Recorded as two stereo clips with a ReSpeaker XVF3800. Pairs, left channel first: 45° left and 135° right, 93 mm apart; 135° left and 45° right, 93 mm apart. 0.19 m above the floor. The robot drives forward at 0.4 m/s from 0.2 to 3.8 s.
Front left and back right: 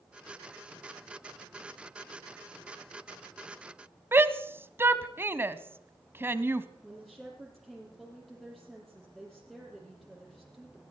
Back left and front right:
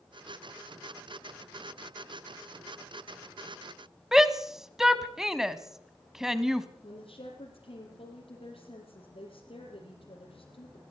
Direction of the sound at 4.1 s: 120° right.